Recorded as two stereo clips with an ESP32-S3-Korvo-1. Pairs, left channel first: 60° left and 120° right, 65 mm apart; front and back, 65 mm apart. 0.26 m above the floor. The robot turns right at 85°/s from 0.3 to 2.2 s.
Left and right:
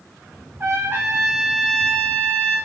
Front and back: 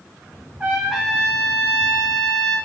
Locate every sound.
0.6 s a trumpet: 125° right, 1.6 m; by 2.6 s 10° left, 1.6 m